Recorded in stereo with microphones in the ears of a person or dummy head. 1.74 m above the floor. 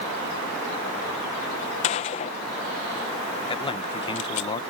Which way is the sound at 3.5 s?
30° left (ahead or behind).